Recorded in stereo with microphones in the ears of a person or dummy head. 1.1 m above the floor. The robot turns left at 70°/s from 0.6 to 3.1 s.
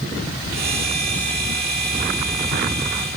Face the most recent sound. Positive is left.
No sound to turn to.